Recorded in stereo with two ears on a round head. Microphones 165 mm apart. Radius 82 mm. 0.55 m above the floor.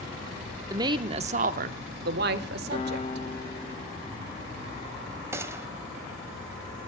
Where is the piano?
30° left (ahead or behind), 1.4 m.